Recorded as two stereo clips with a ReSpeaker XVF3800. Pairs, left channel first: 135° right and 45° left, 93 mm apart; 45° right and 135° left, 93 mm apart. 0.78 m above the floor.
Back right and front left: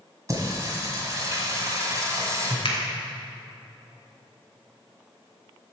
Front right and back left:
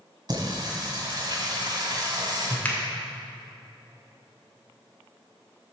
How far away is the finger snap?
About 1.7 m.